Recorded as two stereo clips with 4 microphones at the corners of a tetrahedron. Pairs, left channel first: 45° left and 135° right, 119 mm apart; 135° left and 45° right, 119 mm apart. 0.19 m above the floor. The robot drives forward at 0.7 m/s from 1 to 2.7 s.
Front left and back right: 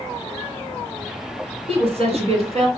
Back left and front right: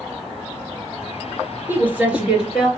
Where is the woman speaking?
115° right, 2.5 m; by 2.7 s 130° right, 2.5 m.